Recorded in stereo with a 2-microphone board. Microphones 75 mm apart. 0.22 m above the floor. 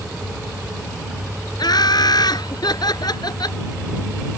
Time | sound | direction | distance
1.6 | laughter | 65° left (ahead or behind) | ?